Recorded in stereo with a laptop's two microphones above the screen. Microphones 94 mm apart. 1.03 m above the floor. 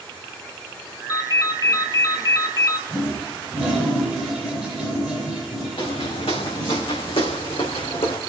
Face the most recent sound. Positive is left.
turn(degrees=75)  # may be behind; listen again after turning